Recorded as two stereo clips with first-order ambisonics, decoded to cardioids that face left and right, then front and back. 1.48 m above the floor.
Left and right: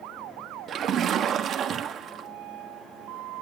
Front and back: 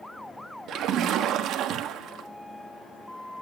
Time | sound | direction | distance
0.7 | a splash | 145° right | 1.3 m